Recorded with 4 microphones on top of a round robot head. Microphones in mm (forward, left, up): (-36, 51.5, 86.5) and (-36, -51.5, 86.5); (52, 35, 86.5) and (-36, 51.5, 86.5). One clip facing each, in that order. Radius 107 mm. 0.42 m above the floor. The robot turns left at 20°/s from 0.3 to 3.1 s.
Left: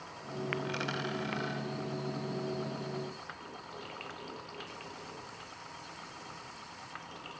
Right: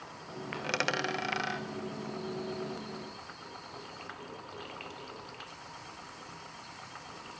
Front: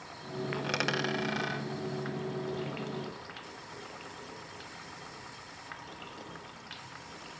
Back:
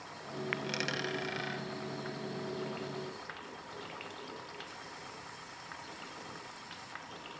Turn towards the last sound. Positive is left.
turn(degrees=-110)